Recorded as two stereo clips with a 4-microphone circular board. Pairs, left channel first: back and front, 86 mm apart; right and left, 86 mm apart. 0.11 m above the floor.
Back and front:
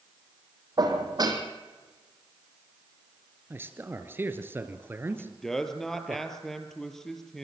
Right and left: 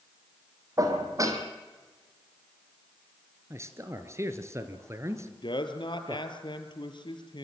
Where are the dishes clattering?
40° left, 3 m.